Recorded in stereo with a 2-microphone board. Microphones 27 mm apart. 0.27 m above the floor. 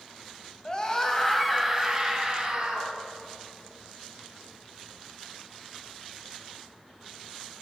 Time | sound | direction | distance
0.7 | a scream | 30° left (ahead or behind) | 1.3 m